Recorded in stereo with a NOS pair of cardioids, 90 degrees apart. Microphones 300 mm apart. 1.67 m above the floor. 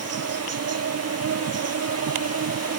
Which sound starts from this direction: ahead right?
An insect, at 0.0 s.